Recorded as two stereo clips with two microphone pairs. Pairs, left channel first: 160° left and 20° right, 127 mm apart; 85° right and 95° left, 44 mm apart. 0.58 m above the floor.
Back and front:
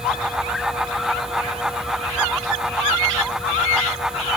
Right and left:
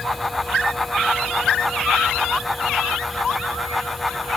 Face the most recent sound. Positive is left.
No sound to turn to.